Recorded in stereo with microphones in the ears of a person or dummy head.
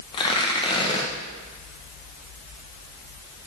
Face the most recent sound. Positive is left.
turn(degrees=25)  # may be behind; listen again after turning